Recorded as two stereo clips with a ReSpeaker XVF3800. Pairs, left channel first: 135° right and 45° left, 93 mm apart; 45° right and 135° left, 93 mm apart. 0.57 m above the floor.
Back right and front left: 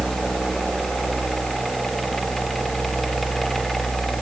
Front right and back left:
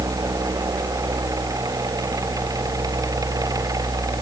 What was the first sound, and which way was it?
Only background noise.